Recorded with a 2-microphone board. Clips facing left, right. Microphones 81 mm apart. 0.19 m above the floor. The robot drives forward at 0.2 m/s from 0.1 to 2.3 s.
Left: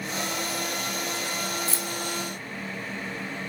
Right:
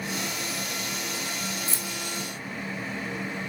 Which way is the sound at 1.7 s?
Centre (ahead or behind).